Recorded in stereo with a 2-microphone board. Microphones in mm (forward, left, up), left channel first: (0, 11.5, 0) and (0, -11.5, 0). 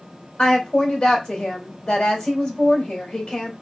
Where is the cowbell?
I don't hear a cowbell.